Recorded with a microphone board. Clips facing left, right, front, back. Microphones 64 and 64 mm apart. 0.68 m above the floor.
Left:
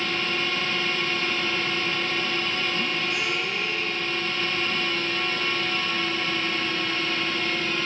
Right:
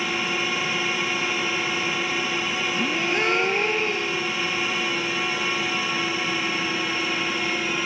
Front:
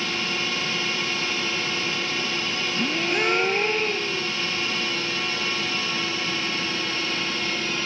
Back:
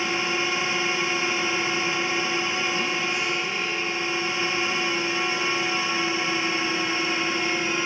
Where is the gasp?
45° right.